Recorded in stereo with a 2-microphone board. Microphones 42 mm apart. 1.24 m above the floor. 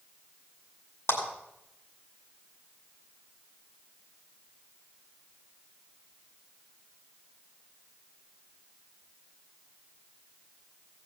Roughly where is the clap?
Left.